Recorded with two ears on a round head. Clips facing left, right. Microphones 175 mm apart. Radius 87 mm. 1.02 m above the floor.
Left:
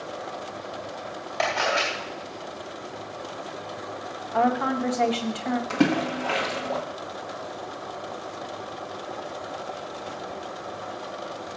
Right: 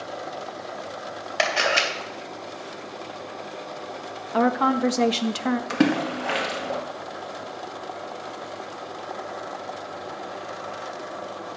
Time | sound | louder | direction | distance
1.4 | a camera shutter | right 1 dB | 70° right (ahead or behind) | 3 m
4.3 | a woman speaking | right 2 dB | 55° right (ahead or behind) | 1.1 m
5.7 | a splash | even | 15° right (ahead or behind) | 1.7 m